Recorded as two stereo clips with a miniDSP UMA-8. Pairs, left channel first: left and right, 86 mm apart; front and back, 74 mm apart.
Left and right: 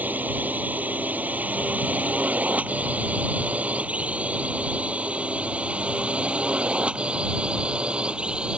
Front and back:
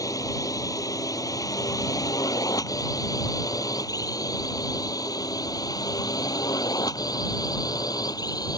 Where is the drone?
25° right; by 8.6 s 10° right.